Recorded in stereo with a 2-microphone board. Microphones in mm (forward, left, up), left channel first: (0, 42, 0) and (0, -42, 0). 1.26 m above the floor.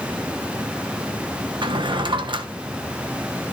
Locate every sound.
1.6 s a drawer: 70° right (ahead or behind), 1.3 m